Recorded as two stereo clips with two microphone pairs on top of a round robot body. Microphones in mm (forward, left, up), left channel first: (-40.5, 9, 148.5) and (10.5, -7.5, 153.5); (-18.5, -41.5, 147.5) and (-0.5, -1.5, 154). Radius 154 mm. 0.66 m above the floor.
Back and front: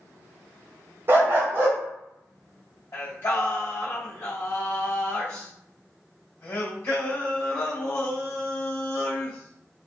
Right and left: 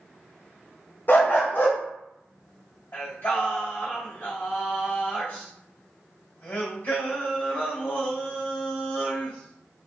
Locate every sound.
1.1 s a dog barking: 70° right, 0.8 m
2.9 s singing: 155° right, 1.8 m